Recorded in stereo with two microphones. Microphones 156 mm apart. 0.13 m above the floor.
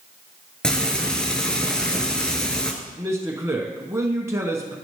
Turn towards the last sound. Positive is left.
turn(degrees=-20)  # may be behind; listen again after turning